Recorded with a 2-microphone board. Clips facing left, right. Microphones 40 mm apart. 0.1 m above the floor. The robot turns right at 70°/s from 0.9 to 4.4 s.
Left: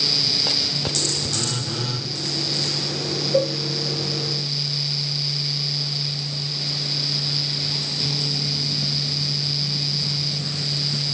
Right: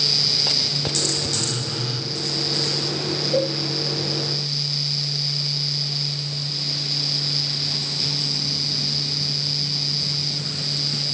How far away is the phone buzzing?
About 2.5 m.